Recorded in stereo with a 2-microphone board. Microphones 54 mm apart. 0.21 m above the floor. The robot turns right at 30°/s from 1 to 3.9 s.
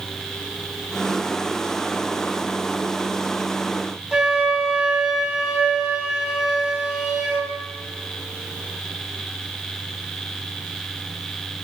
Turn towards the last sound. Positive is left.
turn(degrees=-10)  # may be behind; listen again after turning